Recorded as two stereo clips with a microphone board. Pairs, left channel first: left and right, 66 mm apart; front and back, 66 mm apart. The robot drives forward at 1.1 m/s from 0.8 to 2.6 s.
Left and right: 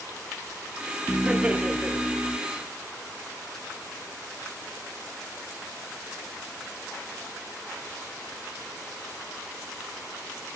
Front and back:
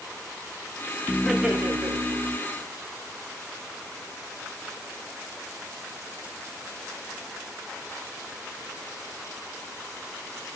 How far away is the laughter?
About 0.7 m.